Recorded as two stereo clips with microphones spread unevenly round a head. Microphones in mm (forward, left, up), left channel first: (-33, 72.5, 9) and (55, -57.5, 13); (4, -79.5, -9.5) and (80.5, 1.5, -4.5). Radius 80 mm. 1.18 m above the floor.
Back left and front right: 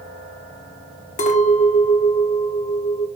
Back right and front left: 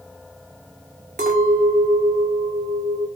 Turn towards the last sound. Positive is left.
turn(degrees=80)